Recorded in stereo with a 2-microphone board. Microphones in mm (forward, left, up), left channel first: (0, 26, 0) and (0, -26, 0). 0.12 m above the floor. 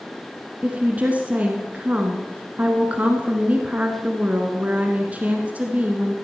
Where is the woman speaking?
25° right (ahead or behind), 1.3 m.